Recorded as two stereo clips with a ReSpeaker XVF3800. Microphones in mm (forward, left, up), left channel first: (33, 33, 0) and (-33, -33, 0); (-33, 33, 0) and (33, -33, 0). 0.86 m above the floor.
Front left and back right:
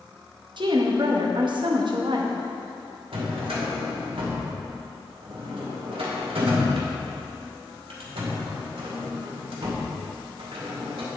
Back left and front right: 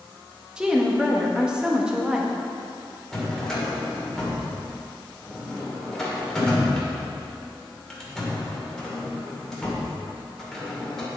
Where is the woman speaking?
125° right, 1.1 m.